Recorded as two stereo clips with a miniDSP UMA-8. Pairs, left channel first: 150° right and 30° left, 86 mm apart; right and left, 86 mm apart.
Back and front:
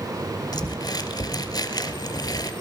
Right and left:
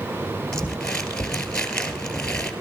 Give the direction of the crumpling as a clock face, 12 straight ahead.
6 o'clock.